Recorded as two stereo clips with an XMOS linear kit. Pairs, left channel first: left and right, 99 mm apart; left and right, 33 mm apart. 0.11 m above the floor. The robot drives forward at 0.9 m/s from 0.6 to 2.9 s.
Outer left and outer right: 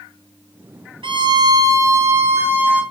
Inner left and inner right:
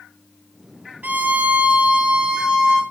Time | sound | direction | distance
1.0 | a violin | 60° right (ahead or behind) | 0.8 m